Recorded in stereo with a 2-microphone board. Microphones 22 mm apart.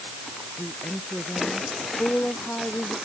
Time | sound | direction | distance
0.6 | a woman speaking | 85° left | ?